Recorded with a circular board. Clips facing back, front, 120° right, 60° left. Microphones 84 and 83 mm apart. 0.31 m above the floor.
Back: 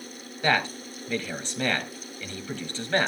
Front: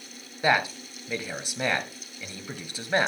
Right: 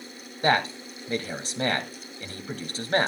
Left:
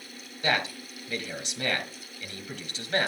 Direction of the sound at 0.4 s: 75° right.